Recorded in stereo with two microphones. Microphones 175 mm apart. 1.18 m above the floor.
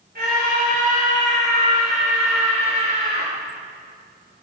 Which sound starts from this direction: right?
A scream, at 0.1 s.